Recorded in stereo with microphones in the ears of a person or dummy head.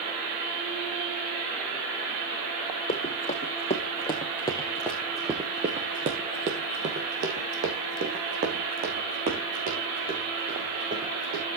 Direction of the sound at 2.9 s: 30° left (ahead or behind).